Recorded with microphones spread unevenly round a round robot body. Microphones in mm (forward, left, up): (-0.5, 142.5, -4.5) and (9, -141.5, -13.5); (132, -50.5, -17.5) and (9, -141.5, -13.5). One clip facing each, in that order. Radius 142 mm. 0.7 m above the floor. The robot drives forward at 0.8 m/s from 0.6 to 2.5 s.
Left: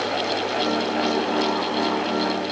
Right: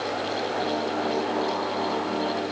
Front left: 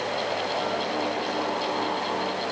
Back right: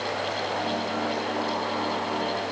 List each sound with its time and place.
Only background noise.